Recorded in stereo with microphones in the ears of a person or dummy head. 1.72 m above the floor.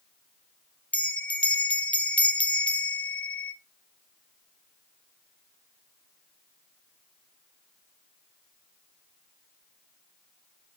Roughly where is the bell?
Centre.